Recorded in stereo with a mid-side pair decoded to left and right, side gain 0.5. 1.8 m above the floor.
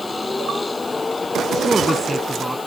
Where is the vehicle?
20° left; by 2.7 s 25° left.